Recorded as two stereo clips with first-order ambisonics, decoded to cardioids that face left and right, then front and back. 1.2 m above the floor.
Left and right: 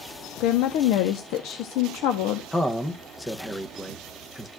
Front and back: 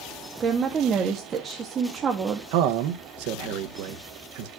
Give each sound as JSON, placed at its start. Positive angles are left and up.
{"t": 0.4, "sound": "a woman speaking", "azimuth_deg": 120, "distance_m": 0.8}
{"t": 2.5, "sound": "a man speaking", "azimuth_deg": 175, "distance_m": 0.6}